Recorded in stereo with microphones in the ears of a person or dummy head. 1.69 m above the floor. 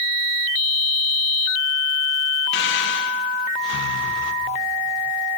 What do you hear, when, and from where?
2.5 s breathing: 65° left (ahead or behind), 1.2 m